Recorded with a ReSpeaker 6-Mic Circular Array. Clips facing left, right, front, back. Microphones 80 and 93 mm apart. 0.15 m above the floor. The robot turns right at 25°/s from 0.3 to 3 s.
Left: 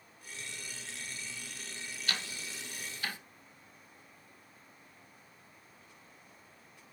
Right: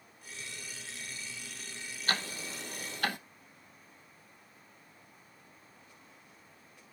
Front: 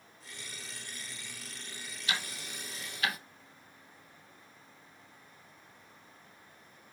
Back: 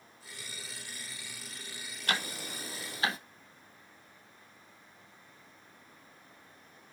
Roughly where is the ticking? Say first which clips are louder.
Right 6 dB, back 3 dB; behind right.